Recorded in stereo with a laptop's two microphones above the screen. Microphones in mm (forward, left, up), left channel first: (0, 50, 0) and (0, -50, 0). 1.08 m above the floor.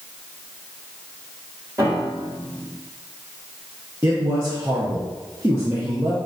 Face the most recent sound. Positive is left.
turn(degrees=-30)  # may be behind; listen again after turning